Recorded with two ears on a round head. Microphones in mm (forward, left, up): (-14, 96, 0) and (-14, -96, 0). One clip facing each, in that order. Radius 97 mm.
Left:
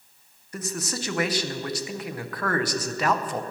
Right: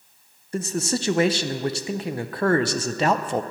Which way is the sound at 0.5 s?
25° right (ahead or behind).